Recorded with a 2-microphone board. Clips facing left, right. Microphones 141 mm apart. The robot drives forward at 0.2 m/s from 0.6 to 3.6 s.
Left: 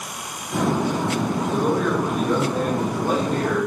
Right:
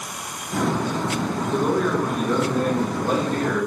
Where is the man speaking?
Centre (ahead or behind), 0.8 m.